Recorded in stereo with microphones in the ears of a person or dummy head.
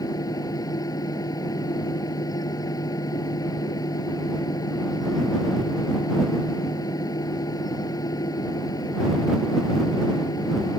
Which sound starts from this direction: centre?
A fan, at 0.0 s.